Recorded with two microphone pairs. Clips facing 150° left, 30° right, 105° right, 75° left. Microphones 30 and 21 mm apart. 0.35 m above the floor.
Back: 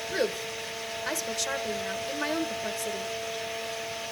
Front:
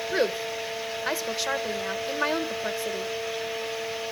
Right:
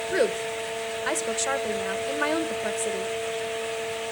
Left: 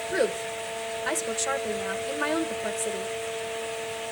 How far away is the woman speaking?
About 0.9 m.